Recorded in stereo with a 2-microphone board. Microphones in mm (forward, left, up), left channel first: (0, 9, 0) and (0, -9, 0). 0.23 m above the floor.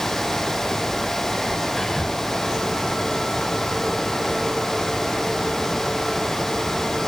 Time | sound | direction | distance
1.8 | whispering | centre (ahead or behind) | 1.5 m